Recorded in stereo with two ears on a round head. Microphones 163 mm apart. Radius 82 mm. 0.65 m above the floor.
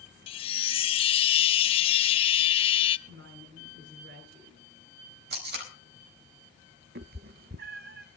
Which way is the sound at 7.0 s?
55° right (ahead or behind).